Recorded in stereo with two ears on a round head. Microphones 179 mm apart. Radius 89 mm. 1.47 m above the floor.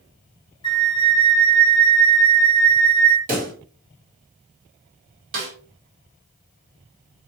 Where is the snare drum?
60° right (ahead or behind), 1.4 m.